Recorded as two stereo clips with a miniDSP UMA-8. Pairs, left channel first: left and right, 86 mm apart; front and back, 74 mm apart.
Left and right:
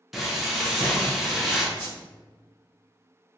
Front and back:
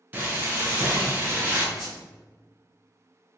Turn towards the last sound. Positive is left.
turn(degrees=-90)